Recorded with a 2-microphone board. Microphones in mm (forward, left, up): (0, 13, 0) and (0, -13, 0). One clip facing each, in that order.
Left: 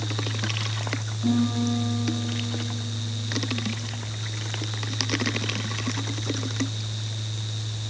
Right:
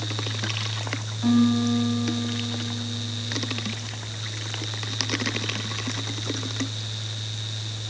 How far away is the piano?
About 1.1 m.